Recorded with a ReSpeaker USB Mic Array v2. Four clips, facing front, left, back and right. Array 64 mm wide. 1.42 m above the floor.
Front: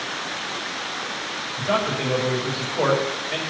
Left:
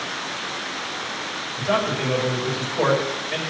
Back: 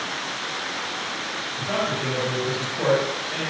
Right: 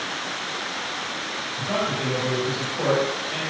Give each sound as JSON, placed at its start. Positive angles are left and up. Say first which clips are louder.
{"t": 1.6, "sound": "a man speaking", "louder": "left 4 dB, front 3 dB", "azimuth_deg": 45, "distance_m": 6.0}